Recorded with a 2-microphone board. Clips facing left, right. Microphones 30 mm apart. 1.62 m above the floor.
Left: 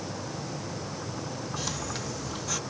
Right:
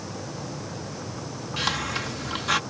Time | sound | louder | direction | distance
1.6 | a hiss | right 11 dB | 55° right (ahead or behind) | ?